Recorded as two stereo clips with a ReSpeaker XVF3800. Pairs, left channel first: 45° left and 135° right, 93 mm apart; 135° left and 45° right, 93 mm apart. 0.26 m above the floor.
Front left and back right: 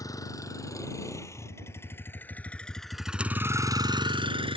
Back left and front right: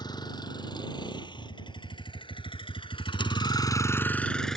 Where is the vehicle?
95° left; by 4.6 s 140° right.